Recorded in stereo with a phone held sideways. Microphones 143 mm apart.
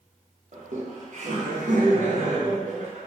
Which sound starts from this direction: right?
Laughter, at 0.5 s.